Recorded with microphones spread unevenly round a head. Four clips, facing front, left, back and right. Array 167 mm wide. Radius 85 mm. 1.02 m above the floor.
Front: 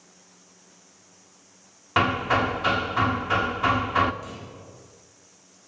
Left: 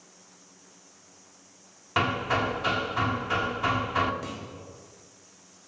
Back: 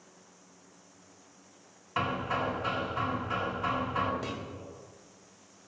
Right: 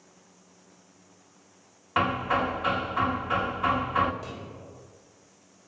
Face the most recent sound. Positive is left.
turn(degrees=150)